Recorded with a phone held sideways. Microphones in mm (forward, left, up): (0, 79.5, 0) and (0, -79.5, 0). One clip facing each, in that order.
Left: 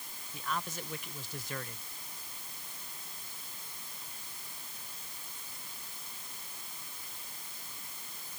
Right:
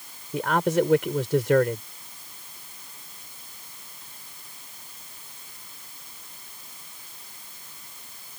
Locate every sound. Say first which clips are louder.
0.3 s a man speaking: right 17 dB; 90° right